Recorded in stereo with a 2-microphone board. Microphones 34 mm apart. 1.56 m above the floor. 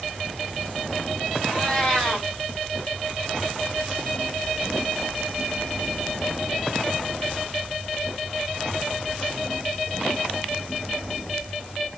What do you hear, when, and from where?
1.4 s a cat meowing: 10° left (ahead or behind), 2.5 m